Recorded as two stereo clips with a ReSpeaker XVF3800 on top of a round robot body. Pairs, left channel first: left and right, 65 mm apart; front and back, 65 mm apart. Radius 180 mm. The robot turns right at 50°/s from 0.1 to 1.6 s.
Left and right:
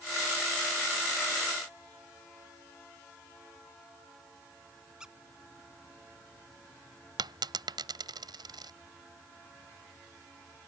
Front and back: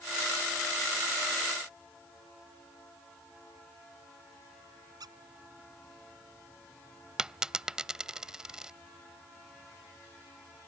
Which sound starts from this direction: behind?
A squeak, at 5.0 s.